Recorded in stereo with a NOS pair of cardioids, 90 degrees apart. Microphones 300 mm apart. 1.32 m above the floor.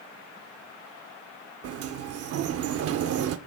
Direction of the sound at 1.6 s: 50° right.